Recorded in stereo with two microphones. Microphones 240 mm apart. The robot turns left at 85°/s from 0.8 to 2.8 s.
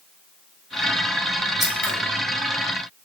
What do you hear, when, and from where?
1.6 s scissors: centre (ahead or behind), 0.8 m; by 1.9 s 15° left (ahead or behind), 0.8 m